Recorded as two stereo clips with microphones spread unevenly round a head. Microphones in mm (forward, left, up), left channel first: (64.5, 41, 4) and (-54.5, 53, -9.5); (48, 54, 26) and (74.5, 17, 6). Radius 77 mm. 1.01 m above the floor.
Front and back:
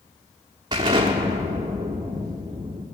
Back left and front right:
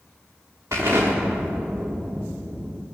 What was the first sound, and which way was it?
An explosion, 120° right.